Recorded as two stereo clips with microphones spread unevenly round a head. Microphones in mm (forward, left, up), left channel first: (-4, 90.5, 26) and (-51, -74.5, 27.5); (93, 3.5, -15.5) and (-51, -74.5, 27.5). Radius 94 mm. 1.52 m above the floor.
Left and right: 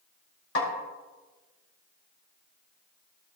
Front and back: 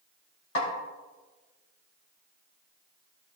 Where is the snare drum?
50° left, 4 m.